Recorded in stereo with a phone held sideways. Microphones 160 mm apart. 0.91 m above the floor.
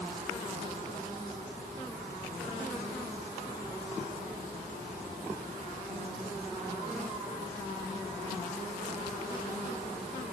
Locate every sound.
Only background noise.